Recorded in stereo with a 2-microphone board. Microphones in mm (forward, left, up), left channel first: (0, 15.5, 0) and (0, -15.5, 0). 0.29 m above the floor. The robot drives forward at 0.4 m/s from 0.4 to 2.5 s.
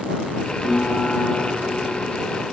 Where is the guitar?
5° right (ahead or behind), 4 m.